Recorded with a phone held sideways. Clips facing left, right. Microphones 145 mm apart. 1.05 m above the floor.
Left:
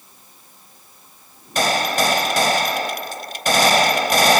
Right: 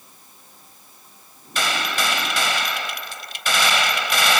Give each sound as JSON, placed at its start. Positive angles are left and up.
{"t": 1.6, "sound": "a gunshot", "side_deg": 45}